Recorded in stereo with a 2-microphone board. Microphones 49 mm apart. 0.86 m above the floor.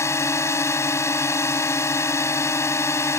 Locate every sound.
0.0 s a drone: 75° left (ahead or behind)